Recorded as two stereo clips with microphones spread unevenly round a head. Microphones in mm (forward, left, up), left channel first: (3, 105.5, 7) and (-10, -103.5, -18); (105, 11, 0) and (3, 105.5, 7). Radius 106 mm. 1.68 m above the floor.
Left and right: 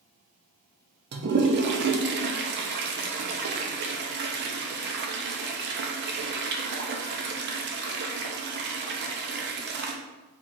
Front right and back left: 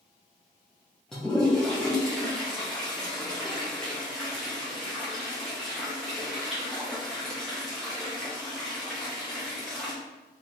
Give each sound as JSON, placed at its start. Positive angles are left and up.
{"t": 1.1, "sound": "a toilet flushing", "azimuth_deg": -130, "distance_m": 0.6}